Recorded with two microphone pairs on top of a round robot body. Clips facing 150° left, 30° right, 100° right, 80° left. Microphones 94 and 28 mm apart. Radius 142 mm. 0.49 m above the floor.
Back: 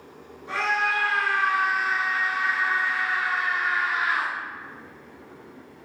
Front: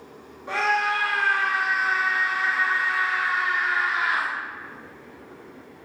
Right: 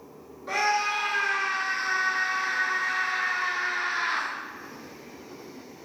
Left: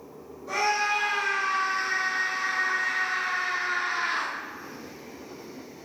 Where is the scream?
60° right, 2 m; by 4.3 s 75° right, 5 m.